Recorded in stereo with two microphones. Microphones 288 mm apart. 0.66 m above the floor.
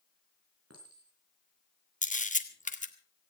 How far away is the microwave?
No microwave in this recording.